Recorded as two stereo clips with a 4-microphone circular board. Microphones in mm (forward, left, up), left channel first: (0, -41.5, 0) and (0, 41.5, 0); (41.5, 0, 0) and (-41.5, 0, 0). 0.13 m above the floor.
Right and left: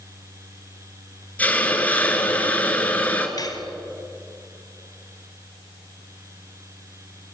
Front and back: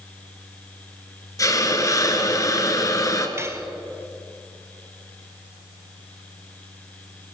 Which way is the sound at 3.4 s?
125° right.